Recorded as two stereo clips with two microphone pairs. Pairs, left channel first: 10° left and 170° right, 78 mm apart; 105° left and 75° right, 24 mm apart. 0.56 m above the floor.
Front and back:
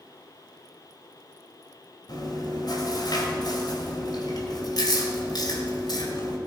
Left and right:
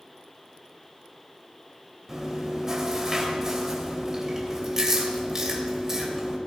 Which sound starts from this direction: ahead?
Chewing, at 2.1 s.